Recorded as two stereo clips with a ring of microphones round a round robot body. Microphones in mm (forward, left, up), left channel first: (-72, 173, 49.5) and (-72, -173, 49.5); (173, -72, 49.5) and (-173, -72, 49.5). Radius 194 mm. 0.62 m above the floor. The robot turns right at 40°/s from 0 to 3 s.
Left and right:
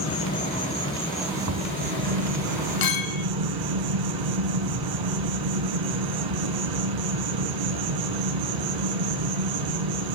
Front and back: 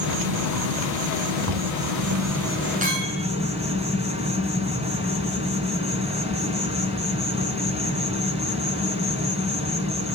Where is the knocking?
140° right, 4 m; by 1.7 s 130° right, 4 m.